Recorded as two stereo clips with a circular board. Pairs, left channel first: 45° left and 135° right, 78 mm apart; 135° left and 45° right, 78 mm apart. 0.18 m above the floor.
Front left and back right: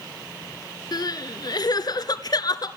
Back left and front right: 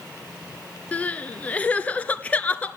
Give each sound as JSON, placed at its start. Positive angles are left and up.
{"t": 0.9, "sound": "crying", "azimuth_deg": 65, "distance_m": 1.1}